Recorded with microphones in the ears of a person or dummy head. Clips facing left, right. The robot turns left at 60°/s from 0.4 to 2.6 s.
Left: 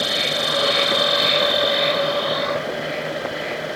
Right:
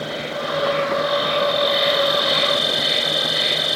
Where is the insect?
85° left; by 3.8 s 45° right.